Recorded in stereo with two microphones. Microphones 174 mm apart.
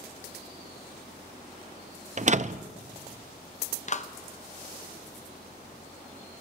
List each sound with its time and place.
2.2 s a door slam: 45° right (ahead or behind), 0.5 m
3.9 s a clap: 45° left (ahead or behind), 0.7 m